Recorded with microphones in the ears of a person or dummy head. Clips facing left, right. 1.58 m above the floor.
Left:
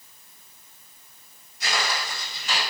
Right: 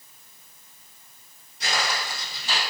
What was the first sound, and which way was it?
Footsteps, 35° right (ahead or behind).